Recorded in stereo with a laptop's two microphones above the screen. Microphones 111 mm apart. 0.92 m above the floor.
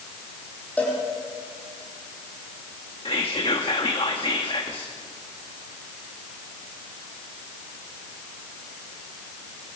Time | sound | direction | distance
0.8 | a cowbell | 15° left (ahead or behind) | 5.5 m
3.0 | whispering | 50° left (ahead or behind) | 1.4 m